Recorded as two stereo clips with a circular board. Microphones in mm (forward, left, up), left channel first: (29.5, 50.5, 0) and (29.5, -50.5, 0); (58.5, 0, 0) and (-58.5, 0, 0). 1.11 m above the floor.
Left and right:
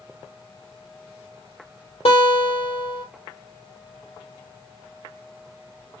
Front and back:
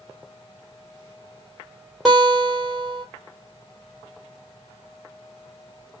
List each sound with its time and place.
2.0 s a guitar: 90° left, 1.6 m